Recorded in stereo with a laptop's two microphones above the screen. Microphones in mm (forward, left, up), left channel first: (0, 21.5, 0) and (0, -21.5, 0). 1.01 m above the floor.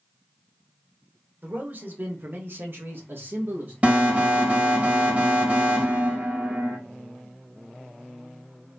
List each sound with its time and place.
1.4 s a man speaking: 50° right (ahead or behind), 1.5 m; by 3.7 s 55° right (ahead or behind), 1.1 m
3.8 s an alarm: 35° right (ahead or behind), 1.5 m